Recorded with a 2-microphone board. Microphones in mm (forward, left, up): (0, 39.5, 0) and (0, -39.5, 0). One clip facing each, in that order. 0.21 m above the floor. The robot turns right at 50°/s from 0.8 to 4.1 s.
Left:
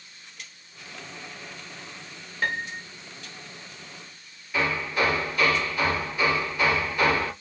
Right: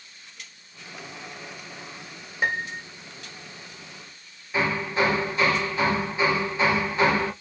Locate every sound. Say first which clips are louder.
2.4 s a piano: right 2 dB; 20° right (ahead or behind), 0.8 m; by 2.9 s 10° right (ahead or behind), 0.8 m
4.5 s hammering: right 2 dB; 25° right (ahead or behind), 1.5 m